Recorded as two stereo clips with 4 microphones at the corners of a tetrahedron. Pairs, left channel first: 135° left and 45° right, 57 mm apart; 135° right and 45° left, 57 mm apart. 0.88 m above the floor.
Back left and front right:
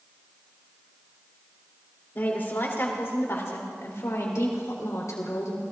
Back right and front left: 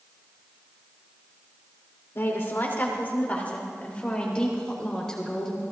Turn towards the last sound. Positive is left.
turn(degrees=145)